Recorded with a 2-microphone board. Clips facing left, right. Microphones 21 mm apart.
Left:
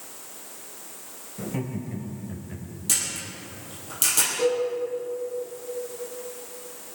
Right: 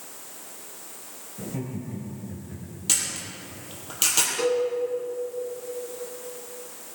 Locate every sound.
1.4 s laughter: 35° left (ahead or behind), 3.5 m; by 2.8 s 25° left (ahead or behind), 2.5 m
2.9 s a camera shutter: 25° right (ahead or behind), 4.5 m
4.4 s a cowbell: 75° right (ahead or behind), 6 m